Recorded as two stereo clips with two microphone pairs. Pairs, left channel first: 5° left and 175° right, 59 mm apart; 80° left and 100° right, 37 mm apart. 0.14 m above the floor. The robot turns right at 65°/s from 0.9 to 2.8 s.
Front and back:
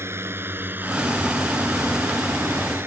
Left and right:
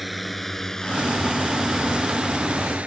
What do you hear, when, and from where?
0.0 s a drone: 170° left; by 2.9 s 145° right